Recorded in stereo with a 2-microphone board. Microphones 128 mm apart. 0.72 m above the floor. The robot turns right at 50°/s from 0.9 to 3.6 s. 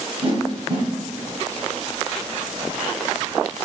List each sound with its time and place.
0.2 s a whoosh: 45° right (ahead or behind), 2.5 m